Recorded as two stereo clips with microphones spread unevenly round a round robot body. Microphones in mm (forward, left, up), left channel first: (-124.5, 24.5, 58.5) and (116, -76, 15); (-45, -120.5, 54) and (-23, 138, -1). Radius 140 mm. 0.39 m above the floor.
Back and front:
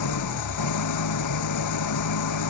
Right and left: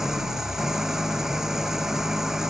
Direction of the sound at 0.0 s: 175° left.